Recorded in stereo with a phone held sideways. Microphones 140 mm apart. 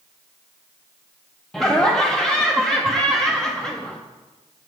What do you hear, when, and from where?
1.5 s laughter: 5° left (ahead or behind), 0.6 m